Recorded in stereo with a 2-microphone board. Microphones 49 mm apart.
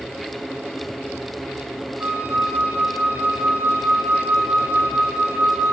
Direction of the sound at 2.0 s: 40° right (ahead or behind).